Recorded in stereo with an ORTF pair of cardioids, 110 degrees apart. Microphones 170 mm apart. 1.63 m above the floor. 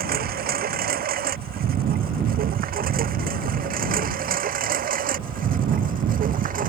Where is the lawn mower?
60° right; by 6.7 s 55° right.